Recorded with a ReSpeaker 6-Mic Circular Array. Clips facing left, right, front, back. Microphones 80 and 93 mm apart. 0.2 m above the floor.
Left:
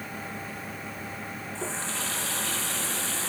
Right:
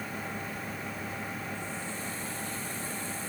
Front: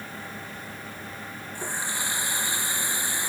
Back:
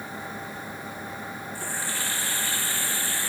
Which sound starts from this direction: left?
A running tap, at 1.6 s.